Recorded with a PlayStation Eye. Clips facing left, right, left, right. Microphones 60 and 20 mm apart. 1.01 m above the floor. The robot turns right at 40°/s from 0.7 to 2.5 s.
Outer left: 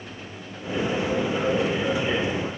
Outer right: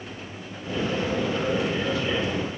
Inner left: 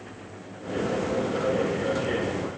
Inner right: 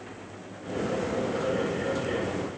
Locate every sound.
Only background noise.